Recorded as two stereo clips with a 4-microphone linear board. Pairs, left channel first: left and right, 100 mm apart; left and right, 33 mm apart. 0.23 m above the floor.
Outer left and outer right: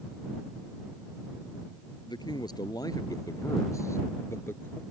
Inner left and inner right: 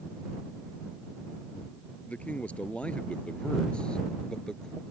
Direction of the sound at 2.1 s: 45° left (ahead or behind).